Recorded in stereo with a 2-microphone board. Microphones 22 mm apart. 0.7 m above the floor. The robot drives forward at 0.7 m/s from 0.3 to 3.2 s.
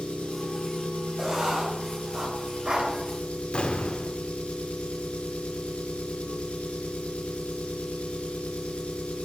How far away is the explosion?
About 1.9 m.